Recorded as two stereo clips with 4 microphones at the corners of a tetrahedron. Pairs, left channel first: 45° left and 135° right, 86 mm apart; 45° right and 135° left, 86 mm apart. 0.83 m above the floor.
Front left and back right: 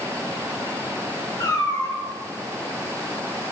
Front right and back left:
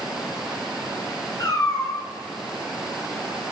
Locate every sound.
1.4 s a cat meowing: straight ahead, 4.5 m